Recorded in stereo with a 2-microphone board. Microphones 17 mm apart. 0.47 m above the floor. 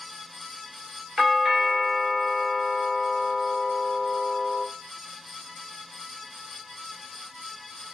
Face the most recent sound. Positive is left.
turn(degrees=-20)  # may be behind; listen again after turning